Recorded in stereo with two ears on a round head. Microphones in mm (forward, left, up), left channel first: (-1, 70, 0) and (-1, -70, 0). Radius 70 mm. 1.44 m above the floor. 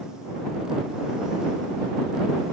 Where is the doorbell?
No doorbell in this recording.